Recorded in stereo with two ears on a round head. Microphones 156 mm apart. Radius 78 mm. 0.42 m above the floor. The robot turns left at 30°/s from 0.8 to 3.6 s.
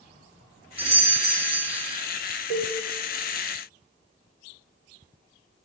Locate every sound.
0.8 s a doorbell: 75° right, 1.6 m; by 1.9 s 105° right, 1.6 m
2.5 s a cowbell: 45° right (ahead or behind), 1.1 m; by 2.8 s 40° right (ahead or behind), 1.1 m